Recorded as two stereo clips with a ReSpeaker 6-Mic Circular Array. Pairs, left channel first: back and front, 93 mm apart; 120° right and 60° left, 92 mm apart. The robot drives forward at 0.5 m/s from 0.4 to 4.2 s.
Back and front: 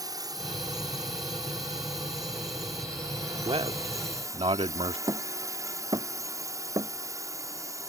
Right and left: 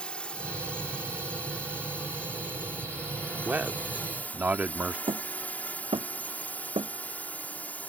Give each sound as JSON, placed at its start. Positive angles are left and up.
{"t": 0.0, "sound": "a drone", "azimuth_deg": -45}
{"t": 3.5, "sound": "a man speaking", "azimuth_deg": -10}
{"t": 5.1, "sound": "hammering", "azimuth_deg": 45}